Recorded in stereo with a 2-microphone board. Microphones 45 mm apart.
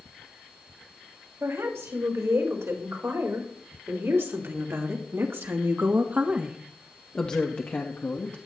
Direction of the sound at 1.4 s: 80° right.